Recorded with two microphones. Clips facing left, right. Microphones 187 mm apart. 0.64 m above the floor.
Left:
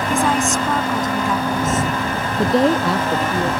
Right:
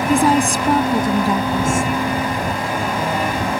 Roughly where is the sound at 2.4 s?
Left.